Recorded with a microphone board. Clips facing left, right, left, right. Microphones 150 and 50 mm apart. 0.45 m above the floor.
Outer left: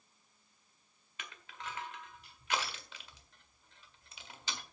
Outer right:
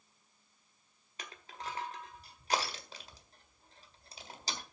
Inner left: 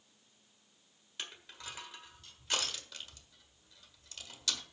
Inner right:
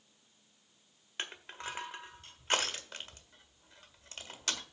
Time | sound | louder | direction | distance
1.2 | crushing | outer right 3 dB, inner right 5 dB | 35° right (ahead or behind) | 1.5 m